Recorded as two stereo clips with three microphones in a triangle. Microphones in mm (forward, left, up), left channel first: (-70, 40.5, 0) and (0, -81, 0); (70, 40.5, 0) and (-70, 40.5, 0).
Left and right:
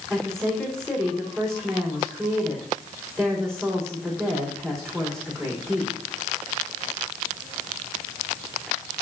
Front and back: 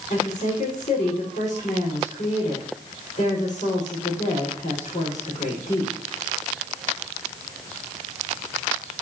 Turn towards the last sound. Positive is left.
turn(degrees=35)